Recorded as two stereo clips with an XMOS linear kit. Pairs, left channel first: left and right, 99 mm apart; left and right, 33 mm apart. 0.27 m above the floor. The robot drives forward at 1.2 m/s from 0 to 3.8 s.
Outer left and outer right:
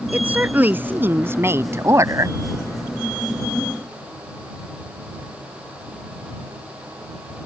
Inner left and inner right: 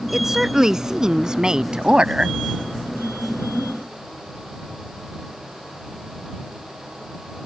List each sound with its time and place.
0.1 s a woman speaking: 15° right (ahead or behind); by 2.4 s 35° right (ahead or behind)